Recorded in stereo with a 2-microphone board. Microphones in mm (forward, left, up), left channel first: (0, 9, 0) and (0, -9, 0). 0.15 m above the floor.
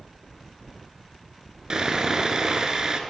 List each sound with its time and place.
1.7 s sawing: 40° right (ahead or behind), 0.7 m